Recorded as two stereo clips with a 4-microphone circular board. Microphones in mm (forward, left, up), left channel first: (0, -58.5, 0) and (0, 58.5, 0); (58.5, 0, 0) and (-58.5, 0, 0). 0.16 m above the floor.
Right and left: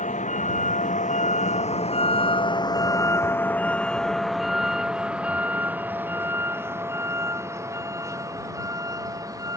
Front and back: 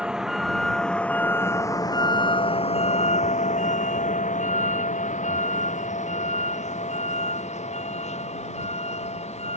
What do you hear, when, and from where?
0.0 s a vehicle: 95° right; by 9.6 s 30° left